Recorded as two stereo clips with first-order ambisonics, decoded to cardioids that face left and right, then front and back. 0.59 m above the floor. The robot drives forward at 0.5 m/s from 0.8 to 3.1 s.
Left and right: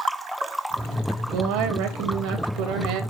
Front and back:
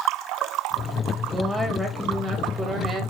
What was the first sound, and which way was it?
A woman speaking, 100° right.